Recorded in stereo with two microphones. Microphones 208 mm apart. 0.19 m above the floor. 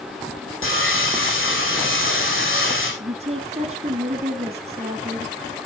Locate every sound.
0.6 s sawing: 75° left (ahead or behind), 7 m
3.0 s a woman speaking: 30° right (ahead or behind), 1.2 m